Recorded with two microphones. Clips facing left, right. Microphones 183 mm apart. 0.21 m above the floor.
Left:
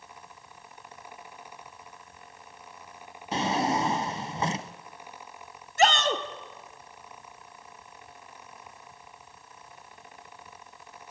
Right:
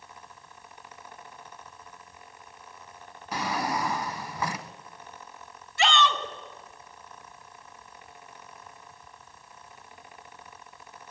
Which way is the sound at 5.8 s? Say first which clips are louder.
Left 2 dB; 45° left (ahead or behind).